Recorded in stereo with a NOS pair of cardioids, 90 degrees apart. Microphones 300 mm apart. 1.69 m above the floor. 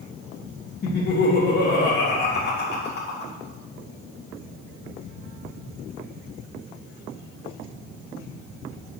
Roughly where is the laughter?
Ahead left.